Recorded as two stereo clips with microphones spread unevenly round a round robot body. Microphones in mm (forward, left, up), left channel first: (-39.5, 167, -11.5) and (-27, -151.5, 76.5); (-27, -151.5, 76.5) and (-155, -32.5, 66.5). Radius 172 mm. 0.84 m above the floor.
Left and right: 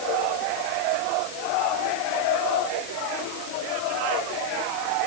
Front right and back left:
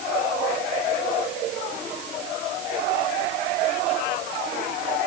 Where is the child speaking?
I don't hear a child speaking.